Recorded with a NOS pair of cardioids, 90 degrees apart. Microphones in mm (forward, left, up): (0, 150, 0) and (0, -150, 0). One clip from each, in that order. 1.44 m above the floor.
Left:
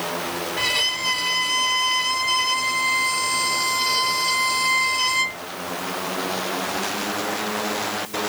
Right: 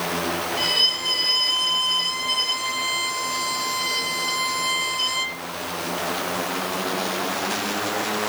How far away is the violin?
About 2.5 m.